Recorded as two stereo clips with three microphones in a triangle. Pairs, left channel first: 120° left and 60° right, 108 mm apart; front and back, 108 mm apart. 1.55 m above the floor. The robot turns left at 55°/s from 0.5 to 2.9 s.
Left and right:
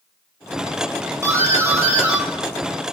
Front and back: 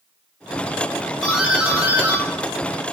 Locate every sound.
1.2 s a doorbell: 85° right, 0.8 m; by 2.8 s 175° right, 0.8 m